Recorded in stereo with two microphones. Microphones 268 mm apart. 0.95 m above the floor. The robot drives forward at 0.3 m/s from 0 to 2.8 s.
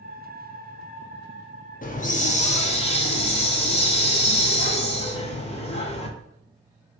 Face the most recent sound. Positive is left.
turn(degrees=25)  # may be behind; listen again after turning